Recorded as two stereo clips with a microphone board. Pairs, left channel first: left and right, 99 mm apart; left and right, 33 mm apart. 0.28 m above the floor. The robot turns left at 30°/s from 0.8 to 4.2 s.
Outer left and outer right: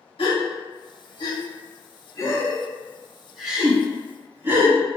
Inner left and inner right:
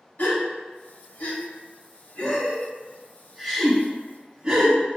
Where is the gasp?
60° left (ahead or behind), 0.7 m; by 4.8 s 20° right (ahead or behind), 0.7 m.